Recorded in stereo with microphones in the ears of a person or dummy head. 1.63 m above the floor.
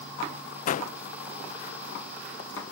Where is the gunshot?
50° left (ahead or behind).